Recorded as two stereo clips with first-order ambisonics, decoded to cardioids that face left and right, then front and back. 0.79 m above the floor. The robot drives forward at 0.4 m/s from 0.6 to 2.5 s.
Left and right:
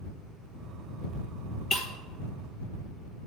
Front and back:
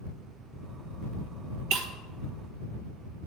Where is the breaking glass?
165° left, 1.1 m.